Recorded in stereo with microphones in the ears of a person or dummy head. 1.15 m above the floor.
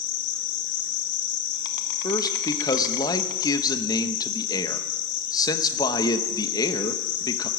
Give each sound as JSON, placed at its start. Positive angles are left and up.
{"t": 0.0, "sound": "an insect", "side_deg": 65, "distance_m": 1.0}
{"t": 2.0, "sound": "a man speaking", "side_deg": 25, "distance_m": 0.9}